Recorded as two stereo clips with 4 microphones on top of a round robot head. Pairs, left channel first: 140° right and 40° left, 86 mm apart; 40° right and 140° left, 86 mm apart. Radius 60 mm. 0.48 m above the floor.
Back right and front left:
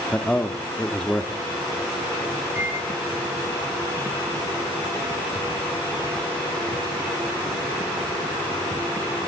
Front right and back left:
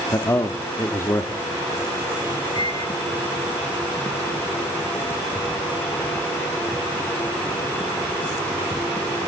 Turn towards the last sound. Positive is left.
turn(degrees=-25)